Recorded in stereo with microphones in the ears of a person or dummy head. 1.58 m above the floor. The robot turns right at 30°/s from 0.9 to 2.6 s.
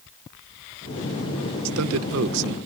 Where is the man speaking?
85° right; by 2.6 s 60° right (ahead or behind).